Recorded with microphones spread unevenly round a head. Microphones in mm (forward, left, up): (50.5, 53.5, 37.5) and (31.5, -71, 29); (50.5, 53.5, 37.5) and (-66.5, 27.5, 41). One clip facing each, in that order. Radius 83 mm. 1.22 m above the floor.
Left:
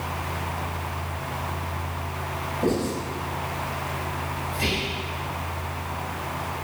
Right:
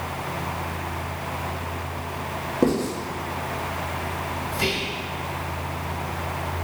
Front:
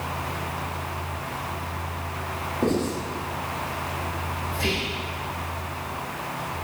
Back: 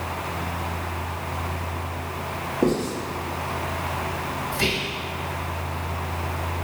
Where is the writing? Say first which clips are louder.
Right 3 dB, back 2 dB; 90° right, 1.6 m.